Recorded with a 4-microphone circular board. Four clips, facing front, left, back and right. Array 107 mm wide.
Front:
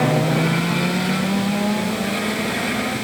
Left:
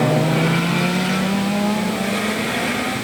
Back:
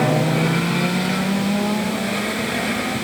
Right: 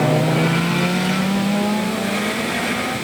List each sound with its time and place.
Only background noise.